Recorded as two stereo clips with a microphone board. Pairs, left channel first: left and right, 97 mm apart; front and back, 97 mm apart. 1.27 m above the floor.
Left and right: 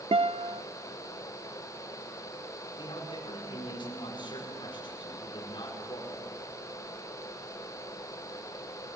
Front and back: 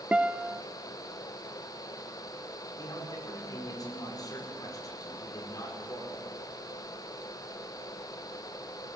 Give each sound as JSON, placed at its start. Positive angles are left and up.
{"t": 0.1, "sound": "a guitar", "azimuth_deg": -105, "distance_m": 0.5}
{"t": 2.8, "sound": "a man speaking", "azimuth_deg": 50, "distance_m": 5.0}